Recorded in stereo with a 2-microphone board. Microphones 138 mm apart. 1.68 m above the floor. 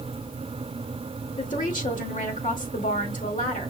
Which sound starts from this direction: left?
A woman speaking, at 1.4 s.